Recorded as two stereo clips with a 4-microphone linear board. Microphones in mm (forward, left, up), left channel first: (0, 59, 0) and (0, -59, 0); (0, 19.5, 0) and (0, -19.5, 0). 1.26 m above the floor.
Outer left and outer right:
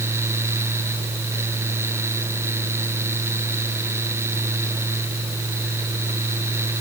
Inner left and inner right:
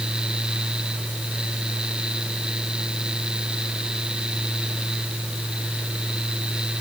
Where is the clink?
I don't hear a clink.